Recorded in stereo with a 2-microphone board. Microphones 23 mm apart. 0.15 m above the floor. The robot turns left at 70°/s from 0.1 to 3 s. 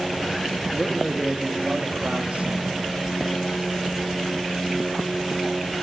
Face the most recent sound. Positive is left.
turn(degrees=-140)